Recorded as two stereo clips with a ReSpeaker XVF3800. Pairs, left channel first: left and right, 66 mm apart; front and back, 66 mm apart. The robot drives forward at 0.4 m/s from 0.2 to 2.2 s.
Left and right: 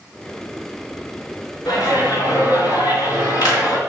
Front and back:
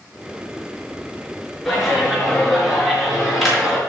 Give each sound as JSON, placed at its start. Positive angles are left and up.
{"t": 1.6, "sound": "a clap", "azimuth_deg": 85, "distance_m": 4.0}